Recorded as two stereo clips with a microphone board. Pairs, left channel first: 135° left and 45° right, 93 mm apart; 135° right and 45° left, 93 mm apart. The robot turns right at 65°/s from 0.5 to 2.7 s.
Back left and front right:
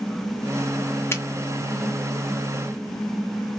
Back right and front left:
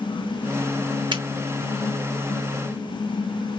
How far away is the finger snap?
About 1.3 m.